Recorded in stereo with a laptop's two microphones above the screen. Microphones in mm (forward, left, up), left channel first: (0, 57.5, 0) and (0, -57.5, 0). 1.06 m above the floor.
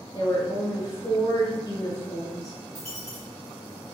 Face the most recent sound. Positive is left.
turn(degrees=10)  # may be behind; listen again after turning